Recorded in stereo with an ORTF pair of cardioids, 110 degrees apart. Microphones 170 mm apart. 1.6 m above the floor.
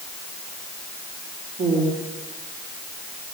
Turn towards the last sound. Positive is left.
turn(degrees=-60)